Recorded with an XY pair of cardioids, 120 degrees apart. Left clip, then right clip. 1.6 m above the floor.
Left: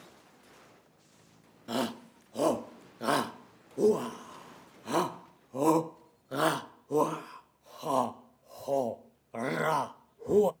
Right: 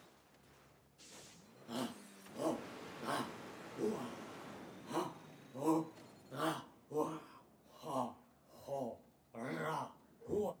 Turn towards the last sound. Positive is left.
turn(degrees=65)